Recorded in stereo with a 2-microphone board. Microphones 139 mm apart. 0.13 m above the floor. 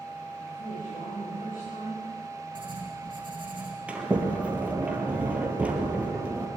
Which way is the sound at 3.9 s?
10° right (ahead or behind).